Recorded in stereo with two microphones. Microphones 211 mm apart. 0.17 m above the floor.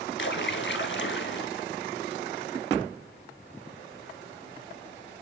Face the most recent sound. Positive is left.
turn(degrees=60)  # may be behind; listen again after turning